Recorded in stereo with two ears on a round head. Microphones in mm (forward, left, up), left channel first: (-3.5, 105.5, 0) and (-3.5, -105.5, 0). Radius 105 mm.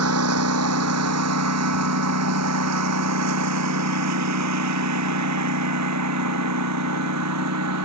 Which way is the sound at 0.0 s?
75° right (ahead or behind).